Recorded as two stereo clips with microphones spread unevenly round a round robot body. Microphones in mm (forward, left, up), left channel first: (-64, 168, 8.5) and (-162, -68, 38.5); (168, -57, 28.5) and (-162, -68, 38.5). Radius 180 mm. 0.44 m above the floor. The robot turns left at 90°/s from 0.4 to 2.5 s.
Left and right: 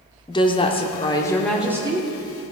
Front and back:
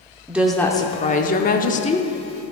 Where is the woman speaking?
95° left, 0.8 m; by 2.1 s 60° right, 0.8 m.